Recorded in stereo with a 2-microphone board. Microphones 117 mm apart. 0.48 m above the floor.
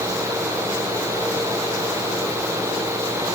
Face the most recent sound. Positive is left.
No sound to turn to.